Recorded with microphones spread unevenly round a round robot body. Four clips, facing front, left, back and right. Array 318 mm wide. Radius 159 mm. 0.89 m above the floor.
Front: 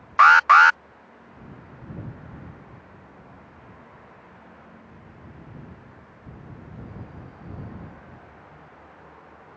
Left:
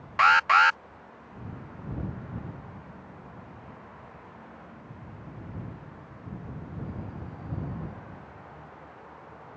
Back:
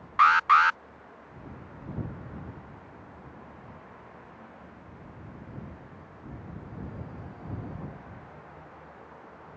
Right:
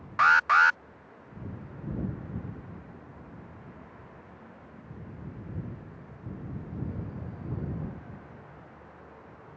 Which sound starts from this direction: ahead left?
An alarm, at 0.2 s.